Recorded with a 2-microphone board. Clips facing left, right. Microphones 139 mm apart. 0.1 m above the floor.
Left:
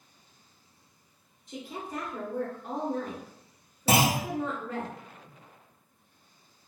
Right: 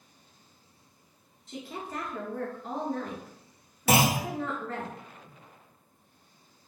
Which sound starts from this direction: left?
A clunk, at 3.9 s.